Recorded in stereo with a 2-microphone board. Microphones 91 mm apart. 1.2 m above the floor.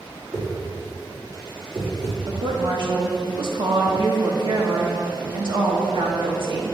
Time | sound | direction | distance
0.3 | a whoosh | 60° right (ahead or behind) | 2.5 m
2.3 | a woman speaking | 60° right (ahead or behind) | 1.9 m